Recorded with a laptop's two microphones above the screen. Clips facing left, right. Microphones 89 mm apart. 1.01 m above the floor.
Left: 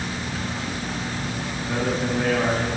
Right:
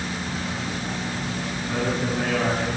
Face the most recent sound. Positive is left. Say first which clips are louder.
# left 1 dB
turn(degrees=15)  # may be behind; listen again after turning